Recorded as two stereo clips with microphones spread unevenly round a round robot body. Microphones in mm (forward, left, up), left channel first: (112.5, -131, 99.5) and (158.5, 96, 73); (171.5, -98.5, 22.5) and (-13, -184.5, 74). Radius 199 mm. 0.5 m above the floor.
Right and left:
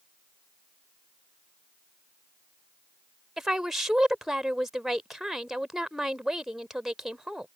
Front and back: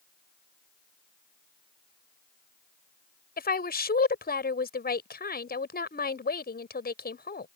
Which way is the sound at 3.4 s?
10° right.